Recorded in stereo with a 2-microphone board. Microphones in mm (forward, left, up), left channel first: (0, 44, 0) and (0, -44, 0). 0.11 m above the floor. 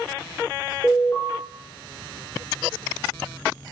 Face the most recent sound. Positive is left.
turn(degrees=25)  # may be behind; listen again after turning